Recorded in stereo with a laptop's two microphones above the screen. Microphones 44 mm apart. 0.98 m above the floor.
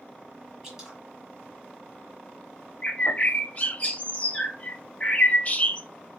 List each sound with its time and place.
0.6 s dripping: 10° right (ahead or behind), 1.4 m
2.8 s a bird: 30° left (ahead or behind), 0.7 m